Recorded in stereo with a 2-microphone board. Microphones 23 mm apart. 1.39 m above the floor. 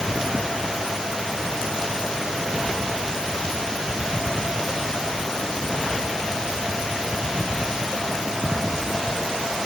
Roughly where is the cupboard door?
No cupboard door in this recording.